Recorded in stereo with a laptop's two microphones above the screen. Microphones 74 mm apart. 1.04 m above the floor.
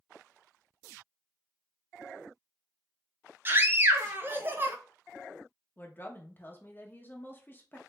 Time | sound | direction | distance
3.5 | a scream | 30° right (ahead or behind) | 0.5 m
5.8 | a woman speaking | 25° left (ahead or behind) | 0.8 m